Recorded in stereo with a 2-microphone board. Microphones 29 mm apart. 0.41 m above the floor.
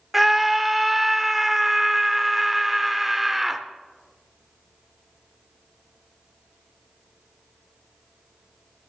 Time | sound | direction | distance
0.1 | a scream | 5° right (ahead or behind) | 0.8 m